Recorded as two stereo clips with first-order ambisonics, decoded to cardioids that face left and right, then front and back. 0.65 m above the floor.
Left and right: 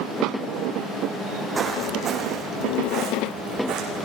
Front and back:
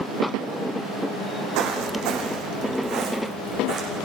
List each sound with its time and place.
1.6 s footsteps: 160° right, 2.5 m; by 4.0 s 125° right, 3 m